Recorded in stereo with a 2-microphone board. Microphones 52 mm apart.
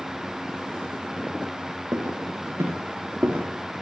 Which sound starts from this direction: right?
Footsteps, at 1.9 s.